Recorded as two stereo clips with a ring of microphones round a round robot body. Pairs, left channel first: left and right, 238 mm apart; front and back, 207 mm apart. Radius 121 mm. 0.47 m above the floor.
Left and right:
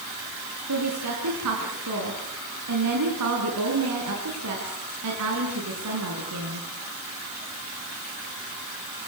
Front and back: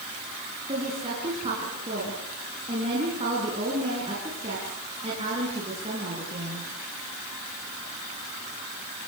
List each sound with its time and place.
0.7 s a woman speaking: 110° right, 5.5 m